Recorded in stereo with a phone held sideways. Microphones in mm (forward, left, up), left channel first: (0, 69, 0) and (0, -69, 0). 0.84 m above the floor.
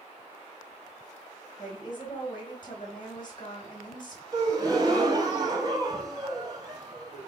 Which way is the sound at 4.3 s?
30° right (ahead or behind).